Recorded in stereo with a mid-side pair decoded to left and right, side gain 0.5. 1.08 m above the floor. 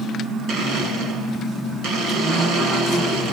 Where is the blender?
65° right, 8 m.